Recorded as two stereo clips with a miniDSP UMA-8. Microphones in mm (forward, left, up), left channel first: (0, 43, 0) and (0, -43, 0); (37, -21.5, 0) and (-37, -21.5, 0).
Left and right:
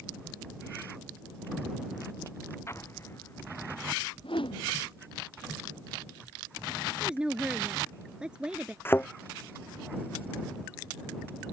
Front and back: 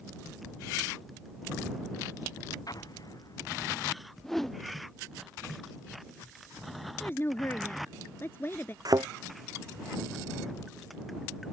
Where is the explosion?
30° left.